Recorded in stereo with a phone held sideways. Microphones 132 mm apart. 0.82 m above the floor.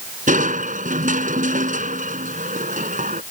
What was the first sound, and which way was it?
Crushing, 70° right (ahead or behind).